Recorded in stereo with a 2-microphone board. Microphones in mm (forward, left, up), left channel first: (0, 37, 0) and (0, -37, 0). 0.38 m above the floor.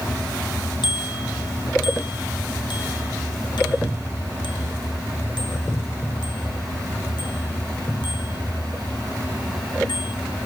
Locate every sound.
0.8 s a bicycle bell: 85° left; by 10.5 s 80° left